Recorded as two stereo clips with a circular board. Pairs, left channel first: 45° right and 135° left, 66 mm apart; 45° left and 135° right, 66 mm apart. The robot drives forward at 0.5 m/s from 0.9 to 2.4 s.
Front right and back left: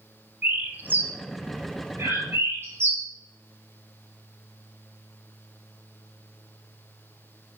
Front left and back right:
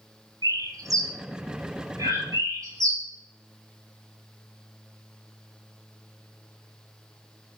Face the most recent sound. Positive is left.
turn(degrees=-175)